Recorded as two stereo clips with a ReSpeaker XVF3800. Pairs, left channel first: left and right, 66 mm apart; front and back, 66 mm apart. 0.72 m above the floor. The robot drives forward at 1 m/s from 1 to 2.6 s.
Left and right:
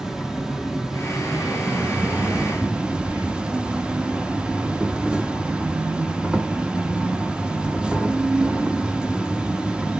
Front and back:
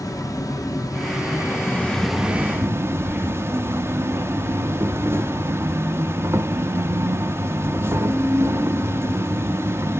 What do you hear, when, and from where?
0.0 s an insect: 10° right, 1.3 m; by 10.0 s 160° right, 0.8 m
3.0 s breathing: 115° right, 3.5 m